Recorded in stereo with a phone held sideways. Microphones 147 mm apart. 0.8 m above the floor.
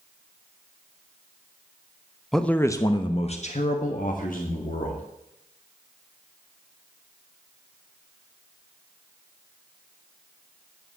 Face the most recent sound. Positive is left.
turn(degrees=65)  # may be behind; listen again after turning